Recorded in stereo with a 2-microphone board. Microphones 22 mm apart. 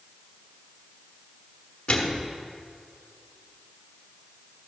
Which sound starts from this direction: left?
A microwave, at 1.9 s.